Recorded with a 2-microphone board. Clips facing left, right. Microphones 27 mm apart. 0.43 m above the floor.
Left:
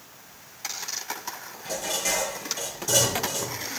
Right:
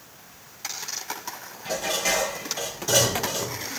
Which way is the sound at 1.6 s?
15° right (ahead or behind).